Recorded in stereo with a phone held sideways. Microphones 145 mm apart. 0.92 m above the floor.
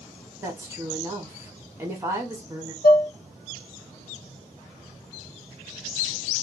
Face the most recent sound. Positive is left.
turn(degrees=85)